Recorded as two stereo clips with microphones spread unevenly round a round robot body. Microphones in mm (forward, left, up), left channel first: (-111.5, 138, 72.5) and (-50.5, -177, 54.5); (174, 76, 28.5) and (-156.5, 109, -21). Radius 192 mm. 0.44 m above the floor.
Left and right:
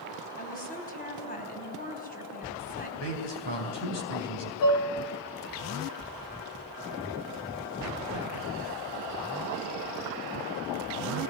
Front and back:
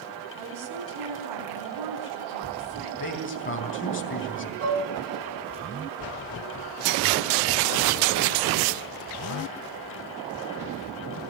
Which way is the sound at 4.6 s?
120° left.